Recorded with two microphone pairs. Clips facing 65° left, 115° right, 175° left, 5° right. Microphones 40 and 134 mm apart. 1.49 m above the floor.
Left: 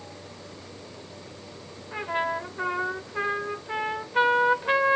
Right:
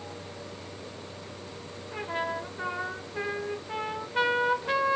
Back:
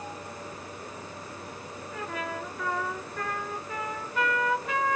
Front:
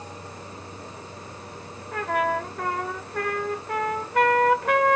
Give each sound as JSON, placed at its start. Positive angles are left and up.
{"t": 1.9, "sound": "a trumpet", "azimuth_deg": 0, "distance_m": 0.7}